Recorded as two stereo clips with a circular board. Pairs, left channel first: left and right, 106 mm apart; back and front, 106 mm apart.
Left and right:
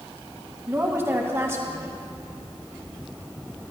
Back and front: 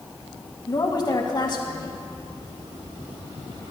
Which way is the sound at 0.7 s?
150° right.